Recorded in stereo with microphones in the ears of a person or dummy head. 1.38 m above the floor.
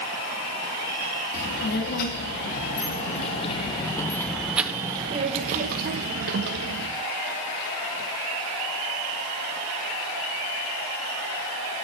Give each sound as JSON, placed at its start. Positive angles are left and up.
{"t": 1.3, "sound": "a child speaking", "side_deg": 55, "distance_m": 2.0}